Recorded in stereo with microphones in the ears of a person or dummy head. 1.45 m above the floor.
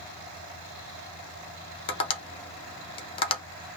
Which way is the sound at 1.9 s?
30° left (ahead or behind).